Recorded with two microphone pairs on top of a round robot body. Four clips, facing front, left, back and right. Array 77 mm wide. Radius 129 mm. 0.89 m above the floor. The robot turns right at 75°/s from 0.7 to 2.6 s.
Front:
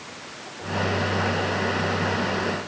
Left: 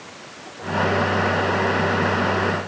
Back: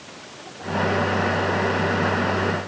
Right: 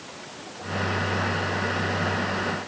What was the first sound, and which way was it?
Only background noise.